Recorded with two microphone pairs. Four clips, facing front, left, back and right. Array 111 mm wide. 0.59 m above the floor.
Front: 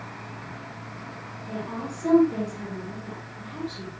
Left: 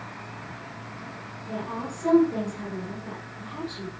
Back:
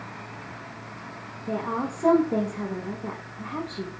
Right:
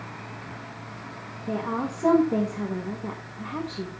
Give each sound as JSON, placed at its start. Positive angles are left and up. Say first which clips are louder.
{"t": 1.5, "sound": "a woman speaking", "louder": "right 5 dB, back 5 dB", "azimuth_deg": -140, "distance_m": 4.5}